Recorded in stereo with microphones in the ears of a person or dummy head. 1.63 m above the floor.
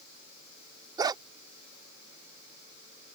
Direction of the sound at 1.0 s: 20° right (ahead or behind).